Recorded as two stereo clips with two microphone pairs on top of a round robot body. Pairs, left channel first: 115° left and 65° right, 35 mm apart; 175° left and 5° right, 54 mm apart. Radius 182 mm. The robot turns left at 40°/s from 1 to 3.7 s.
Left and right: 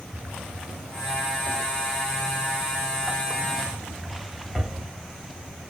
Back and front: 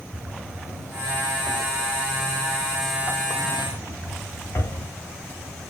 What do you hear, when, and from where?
0.1 s a drawer: 40° right, 1.4 m; by 4.9 s 150° right, 1.4 m